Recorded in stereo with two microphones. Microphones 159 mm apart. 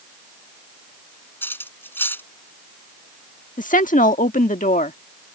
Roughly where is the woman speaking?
Left.